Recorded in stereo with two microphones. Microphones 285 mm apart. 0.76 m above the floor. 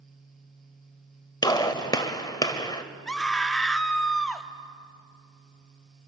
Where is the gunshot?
15° left (ahead or behind), 1.1 m.